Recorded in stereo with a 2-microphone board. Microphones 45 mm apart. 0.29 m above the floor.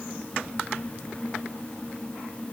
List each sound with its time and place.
Only background noise.